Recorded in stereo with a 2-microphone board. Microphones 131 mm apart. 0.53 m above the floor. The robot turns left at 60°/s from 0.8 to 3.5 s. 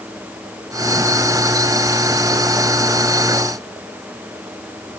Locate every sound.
Only background noise.